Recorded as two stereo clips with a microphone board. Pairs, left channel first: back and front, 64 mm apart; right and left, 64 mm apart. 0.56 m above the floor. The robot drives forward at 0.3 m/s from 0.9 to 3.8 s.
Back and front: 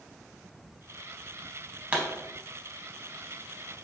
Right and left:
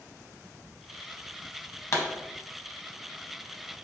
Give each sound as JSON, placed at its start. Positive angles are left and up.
{"t": 1.9, "sound": "a pop", "azimuth_deg": -65, "distance_m": 0.6}